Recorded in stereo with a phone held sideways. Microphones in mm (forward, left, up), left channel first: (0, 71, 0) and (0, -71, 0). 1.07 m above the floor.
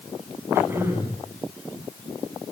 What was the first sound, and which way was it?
Throat clearing, 15° right (ahead or behind).